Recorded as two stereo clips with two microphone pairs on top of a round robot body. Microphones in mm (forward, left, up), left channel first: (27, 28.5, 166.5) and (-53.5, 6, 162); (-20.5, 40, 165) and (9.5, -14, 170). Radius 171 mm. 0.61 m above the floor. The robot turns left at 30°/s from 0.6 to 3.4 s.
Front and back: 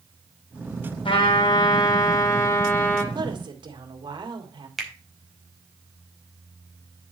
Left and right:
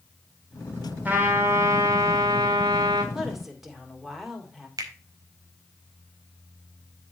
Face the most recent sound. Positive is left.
turn(degrees=-80)